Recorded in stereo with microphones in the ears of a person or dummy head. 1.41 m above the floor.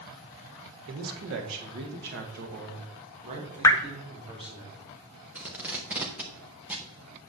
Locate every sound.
0.9 s a man speaking: 85° right, 1.6 m; by 4.6 s 25° right (ahead or behind), 3.5 m
3.6 s dripping: 15° left (ahead or behind), 0.7 m
5.3 s tape being pulled: 10° right (ahead or behind), 0.9 m